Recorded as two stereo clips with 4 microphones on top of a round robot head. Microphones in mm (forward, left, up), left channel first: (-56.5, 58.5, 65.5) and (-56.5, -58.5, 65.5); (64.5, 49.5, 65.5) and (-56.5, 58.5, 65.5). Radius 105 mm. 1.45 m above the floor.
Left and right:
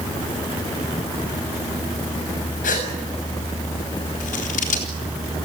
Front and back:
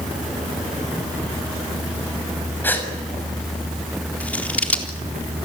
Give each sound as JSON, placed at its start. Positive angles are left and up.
{"t": 2.6, "sound": "a gasp", "azimuth_deg": 70, "distance_m": 6.5}
{"t": 4.2, "sound": "scissors", "azimuth_deg": 75, "distance_m": 4.0}